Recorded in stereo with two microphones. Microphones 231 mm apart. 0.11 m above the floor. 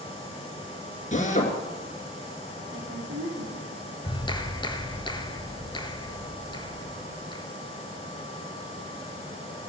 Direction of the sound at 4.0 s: 20° left (ahead or behind).